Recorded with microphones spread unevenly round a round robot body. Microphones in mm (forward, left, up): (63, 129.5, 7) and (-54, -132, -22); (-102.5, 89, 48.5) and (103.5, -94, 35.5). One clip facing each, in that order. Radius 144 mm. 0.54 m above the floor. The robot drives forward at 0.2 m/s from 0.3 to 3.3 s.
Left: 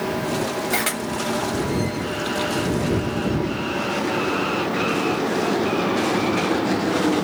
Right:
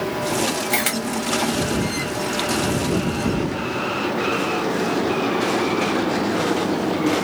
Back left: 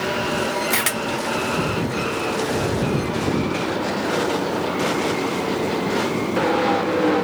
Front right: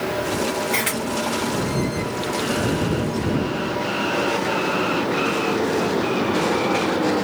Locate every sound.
0.7 s a camera shutter: 170° left, 0.7 m